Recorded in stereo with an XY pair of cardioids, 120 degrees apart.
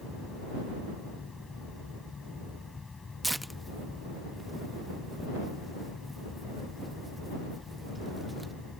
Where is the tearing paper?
5° right.